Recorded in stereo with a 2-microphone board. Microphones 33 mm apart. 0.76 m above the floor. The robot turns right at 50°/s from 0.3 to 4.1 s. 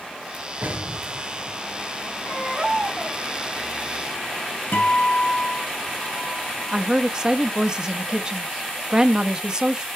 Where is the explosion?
65° right (ahead or behind), 4 m; by 2.0 s 45° right (ahead or behind), 4 m.